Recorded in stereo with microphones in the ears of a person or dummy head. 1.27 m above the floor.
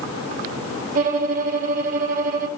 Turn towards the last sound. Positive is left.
turn(degrees=-50)  # may be behind; listen again after turning